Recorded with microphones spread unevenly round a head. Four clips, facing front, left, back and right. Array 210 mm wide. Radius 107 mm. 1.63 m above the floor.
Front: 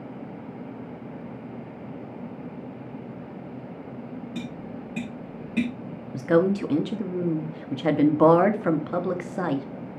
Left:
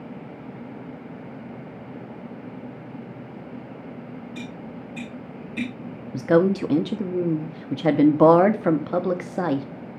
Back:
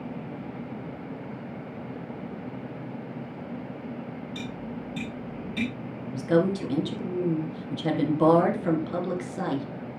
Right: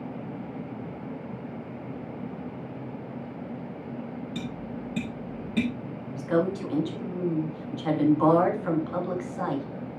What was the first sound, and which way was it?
Tapping, 60° right.